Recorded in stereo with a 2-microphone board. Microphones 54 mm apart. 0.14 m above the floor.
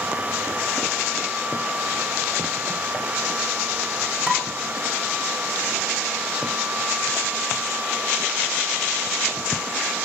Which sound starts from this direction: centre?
Dishes clattering, at 4.3 s.